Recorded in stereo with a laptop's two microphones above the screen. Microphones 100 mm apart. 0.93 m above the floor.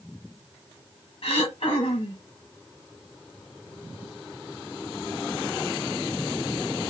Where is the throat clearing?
65° left (ahead or behind), 1.0 m.